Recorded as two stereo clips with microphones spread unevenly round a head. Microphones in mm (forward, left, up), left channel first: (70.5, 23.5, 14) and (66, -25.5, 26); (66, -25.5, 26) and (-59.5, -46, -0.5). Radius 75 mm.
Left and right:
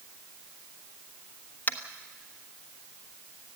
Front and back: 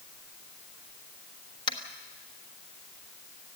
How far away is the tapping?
About 1.2 m.